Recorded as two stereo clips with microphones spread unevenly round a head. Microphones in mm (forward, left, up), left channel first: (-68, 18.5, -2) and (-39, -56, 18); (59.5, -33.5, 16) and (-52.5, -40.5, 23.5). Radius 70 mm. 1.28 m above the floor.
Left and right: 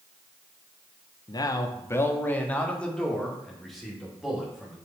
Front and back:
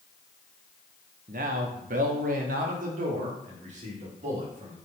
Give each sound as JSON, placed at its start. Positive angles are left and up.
{"t": 1.3, "sound": "a man speaking", "azimuth_deg": 150, "distance_m": 1.0}